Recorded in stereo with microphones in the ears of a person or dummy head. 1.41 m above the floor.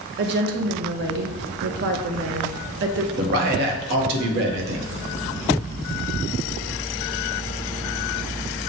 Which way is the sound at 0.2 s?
55° right (ahead or behind).